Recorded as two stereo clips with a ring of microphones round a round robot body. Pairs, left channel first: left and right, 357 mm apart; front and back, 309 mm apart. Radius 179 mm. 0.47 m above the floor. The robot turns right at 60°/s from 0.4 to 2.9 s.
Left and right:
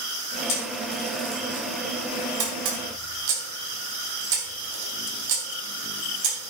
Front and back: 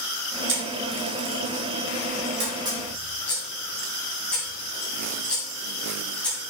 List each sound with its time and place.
0.5 s a camera shutter: 130° left, 3.5 m; by 6.5 s 85° right, 3.5 m